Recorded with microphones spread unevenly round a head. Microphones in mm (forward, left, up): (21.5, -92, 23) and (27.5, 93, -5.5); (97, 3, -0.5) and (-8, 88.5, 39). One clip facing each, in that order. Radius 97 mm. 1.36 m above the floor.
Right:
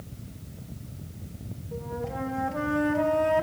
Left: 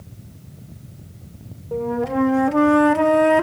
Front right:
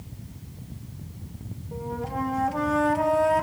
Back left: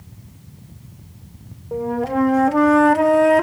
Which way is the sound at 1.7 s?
115° left.